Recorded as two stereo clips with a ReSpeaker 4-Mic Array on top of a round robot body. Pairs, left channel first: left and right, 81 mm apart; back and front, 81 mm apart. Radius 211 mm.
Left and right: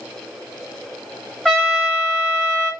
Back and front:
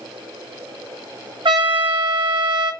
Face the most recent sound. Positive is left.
turn(degrees=10)